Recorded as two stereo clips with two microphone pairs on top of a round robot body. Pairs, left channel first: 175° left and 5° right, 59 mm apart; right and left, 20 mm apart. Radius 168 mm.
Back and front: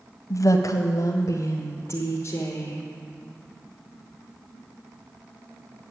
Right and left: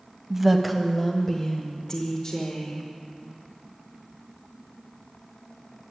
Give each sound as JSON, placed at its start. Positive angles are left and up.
{"t": 0.3, "sound": "a woman speaking", "azimuth_deg": 160, "distance_m": 0.8}